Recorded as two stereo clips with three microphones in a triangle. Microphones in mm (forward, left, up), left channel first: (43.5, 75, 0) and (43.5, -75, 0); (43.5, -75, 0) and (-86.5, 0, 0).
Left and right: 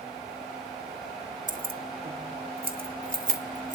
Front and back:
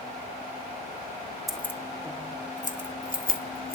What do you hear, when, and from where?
1.5 s keys jangling: 120° right, 1.1 m; by 3.8 s 50° right, 3 m